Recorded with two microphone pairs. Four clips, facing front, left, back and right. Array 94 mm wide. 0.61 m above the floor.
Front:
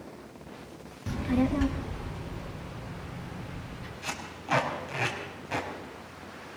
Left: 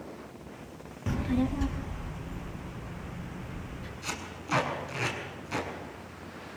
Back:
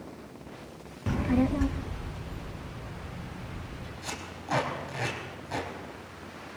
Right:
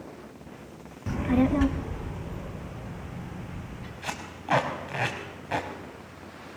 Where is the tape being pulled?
85° right, 5 m.